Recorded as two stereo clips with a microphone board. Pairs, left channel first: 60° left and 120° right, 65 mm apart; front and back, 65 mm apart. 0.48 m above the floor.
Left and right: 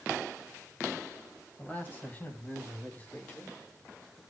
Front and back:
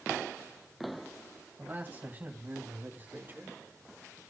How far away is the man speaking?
About 3 m.